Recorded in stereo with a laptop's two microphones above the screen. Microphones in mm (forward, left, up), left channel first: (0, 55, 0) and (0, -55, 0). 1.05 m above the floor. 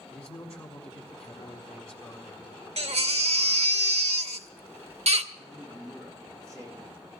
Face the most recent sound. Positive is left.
turn(degrees=10)  # may be behind; listen again after turning